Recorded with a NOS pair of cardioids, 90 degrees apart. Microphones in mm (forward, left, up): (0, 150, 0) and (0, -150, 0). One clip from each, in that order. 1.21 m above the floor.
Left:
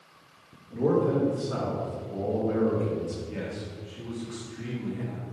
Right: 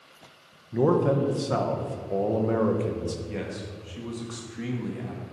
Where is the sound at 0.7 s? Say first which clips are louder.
Right 2 dB; 65° right, 1.1 m.